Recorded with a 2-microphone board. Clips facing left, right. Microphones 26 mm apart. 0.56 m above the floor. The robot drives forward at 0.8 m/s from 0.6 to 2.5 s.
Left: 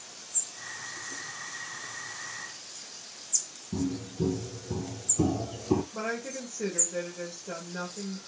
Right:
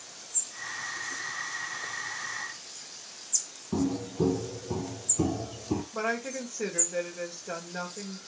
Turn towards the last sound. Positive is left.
turn(degrees=-15)  # may be behind; listen again after turning